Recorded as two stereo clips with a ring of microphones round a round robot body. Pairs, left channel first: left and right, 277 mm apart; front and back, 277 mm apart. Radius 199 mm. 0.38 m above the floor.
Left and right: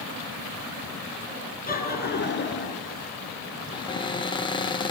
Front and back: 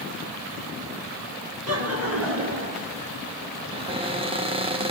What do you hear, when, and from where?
1.7 s laughter: 150° left, 5.5 m; by 2.9 s 135° left, 5.5 m
3.7 s a cupboard door: 140° left, 1.0 m